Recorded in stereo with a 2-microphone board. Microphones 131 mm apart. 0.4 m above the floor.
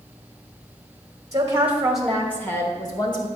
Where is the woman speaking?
25° right (ahead or behind), 0.8 m; by 3.3 s 35° left (ahead or behind), 1.1 m.